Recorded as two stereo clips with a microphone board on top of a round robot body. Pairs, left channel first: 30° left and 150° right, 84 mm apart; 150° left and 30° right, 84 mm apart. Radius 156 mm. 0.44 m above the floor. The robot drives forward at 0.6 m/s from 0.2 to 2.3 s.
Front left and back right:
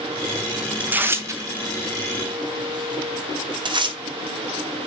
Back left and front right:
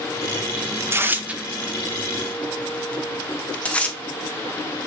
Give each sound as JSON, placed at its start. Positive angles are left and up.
{"t": 0.8, "sound": "tearing paper", "azimuth_deg": -80, "distance_m": 0.9}